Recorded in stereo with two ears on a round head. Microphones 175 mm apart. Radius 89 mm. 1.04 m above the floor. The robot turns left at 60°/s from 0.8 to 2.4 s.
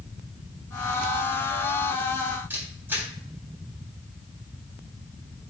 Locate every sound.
2.5 s a camera shutter: 10° right (ahead or behind), 3.5 m